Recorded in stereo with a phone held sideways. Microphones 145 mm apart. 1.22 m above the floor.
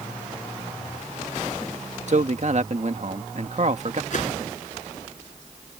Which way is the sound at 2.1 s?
55° right (ahead or behind).